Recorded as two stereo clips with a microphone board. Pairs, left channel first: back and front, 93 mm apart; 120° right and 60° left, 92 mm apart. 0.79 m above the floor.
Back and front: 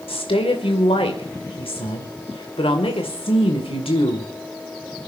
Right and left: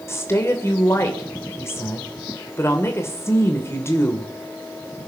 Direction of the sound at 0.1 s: Straight behind.